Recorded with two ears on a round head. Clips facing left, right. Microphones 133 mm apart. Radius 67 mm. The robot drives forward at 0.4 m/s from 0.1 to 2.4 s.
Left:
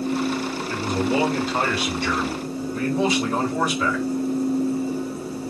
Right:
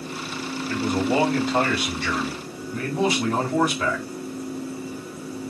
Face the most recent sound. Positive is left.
turn(degrees=-40)  # may be behind; listen again after turning